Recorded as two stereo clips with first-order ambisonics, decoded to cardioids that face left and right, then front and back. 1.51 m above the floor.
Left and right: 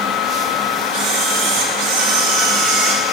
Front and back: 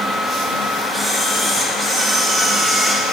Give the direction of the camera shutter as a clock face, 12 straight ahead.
3 o'clock.